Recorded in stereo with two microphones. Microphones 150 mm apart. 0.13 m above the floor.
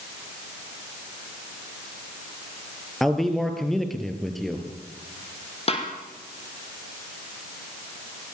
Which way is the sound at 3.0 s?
Centre (ahead or behind).